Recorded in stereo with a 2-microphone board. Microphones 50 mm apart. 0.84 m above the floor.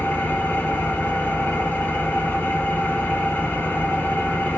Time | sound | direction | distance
0.0 | an engine running | 40° left (ahead or behind) | 0.8 m